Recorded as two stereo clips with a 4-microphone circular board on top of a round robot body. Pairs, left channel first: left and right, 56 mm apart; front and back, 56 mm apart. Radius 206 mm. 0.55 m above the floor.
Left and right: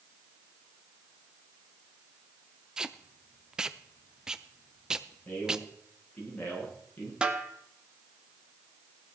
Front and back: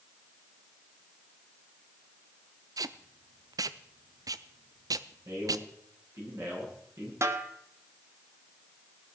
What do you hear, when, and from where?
2.8 s tape being pulled: 170° right, 0.5 m
5.2 s a man speaking: 150° left, 9.5 m
7.2 s a snare drum: 160° right, 2 m